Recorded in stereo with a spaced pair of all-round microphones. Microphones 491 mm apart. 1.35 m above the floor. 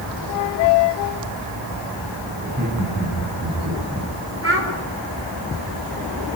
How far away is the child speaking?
About 4 m.